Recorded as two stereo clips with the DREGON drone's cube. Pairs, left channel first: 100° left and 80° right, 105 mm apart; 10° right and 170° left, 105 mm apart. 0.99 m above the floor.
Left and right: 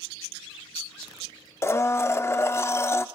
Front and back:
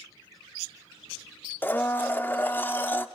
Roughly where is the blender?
Ahead left.